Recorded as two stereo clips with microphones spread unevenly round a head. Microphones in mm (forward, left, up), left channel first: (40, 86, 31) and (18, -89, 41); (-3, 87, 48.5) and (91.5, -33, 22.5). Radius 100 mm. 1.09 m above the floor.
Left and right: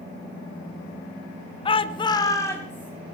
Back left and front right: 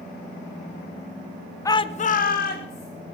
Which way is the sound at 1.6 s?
55° left.